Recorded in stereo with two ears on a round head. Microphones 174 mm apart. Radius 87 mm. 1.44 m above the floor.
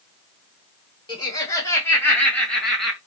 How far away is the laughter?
About 2.5 m.